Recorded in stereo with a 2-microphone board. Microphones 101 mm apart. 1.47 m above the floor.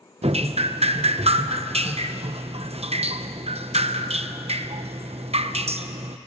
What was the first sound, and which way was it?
Dripping, 75° right (ahead or behind).